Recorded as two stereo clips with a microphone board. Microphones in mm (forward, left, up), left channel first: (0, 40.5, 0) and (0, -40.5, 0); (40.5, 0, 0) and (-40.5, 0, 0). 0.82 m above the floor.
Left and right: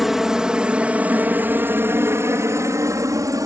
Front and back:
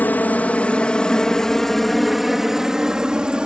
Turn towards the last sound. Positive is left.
turn(degrees=-105)